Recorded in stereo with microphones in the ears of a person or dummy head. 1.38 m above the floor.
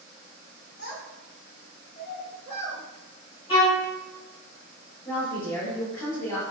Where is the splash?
I don't hear a splash.